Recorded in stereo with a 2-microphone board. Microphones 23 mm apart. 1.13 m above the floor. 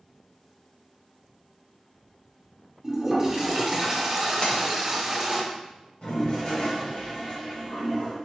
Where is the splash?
55° left (ahead or behind), 1.8 m.